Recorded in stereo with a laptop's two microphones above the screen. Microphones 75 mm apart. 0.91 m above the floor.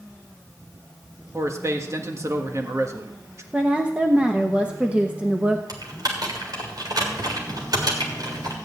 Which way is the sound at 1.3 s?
40° right (ahead or behind).